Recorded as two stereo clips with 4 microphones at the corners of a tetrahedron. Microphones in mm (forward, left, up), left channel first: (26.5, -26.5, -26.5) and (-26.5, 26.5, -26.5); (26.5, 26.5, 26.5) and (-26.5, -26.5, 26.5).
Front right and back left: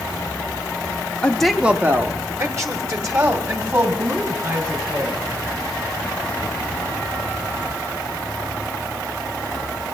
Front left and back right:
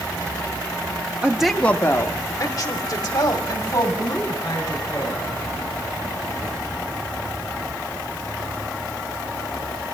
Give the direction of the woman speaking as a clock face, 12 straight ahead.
3 o'clock.